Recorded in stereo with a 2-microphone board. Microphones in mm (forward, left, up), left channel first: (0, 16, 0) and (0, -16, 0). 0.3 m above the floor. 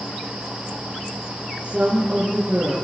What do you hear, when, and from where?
1.6 s a woman speaking: 30° right (ahead or behind), 6 m